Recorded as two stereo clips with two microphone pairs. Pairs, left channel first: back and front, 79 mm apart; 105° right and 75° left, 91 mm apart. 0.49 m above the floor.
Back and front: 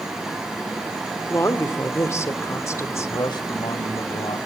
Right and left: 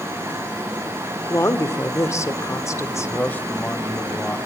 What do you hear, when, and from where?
1.3 s a woman speaking: 145° right, 1.7 m
3.0 s a man speaking: 175° right, 1.9 m